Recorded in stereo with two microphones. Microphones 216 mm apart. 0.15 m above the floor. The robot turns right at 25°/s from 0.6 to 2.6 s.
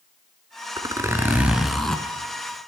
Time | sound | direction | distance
0.8 | a zipper | 25° right | 0.6 m